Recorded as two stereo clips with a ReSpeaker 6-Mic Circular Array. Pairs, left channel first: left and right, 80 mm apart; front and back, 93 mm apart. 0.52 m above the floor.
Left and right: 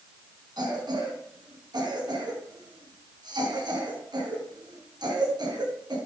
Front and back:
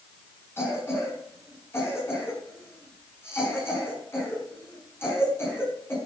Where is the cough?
65° right, 5.5 m.